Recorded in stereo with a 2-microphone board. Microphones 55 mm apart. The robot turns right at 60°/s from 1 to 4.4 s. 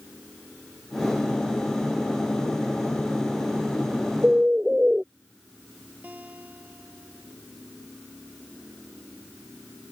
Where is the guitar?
30° right (ahead or behind).